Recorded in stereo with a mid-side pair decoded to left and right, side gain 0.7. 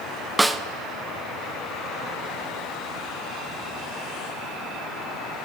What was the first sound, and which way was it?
A snare drum, 10° right.